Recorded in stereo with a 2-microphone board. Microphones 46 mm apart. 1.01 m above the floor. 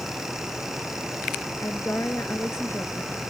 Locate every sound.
1.6 s a woman speaking: 70° left (ahead or behind); by 3.2 s 65° left (ahead or behind)